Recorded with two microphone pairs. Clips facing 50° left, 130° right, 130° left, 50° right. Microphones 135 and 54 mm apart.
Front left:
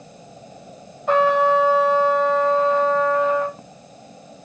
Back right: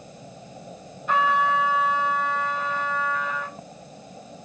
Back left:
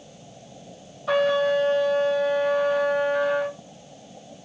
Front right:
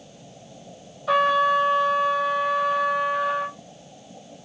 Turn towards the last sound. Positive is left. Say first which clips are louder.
# front left 6 dB, front right 2 dB
turn(degrees=45)